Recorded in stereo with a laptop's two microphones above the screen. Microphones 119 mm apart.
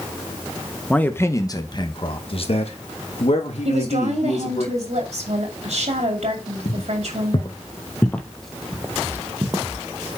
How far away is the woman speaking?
About 2.5 m.